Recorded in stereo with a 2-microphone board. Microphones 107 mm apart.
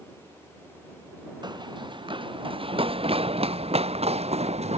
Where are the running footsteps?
40° right (ahead or behind); by 4.8 s 75° right (ahead or behind).